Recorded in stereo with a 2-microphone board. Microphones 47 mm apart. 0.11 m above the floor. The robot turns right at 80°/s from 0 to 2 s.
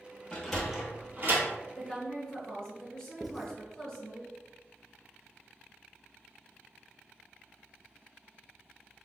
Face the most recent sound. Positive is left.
turn(degrees=-5)  # may be behind; listen again after turning